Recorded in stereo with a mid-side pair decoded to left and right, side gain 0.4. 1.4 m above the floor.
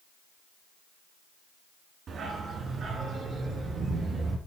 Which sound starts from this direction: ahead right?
A dog barking, at 2.1 s.